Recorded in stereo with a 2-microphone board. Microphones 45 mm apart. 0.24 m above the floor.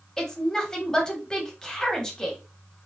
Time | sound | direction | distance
0.2 | a woman speaking | 15° left (ahead or behind) | 1.0 m